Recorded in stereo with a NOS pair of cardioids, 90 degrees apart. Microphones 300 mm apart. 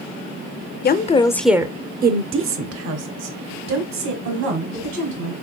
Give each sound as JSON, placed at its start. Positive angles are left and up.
{"t": 0.8, "sound": "a woman speaking", "azimuth_deg": 35, "distance_m": 0.6}